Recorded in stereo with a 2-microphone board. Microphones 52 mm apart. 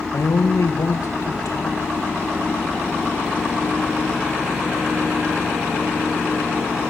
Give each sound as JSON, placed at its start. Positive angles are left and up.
{"t": 0.1, "sound": "a man speaking", "side_deg": 80, "distance_m": 2.5}